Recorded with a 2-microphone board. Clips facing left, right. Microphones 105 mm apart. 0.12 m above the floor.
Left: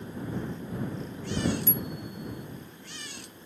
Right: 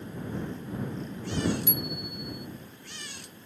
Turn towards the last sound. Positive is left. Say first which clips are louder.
# even
turn(degrees=-15)  # may be behind; listen again after turning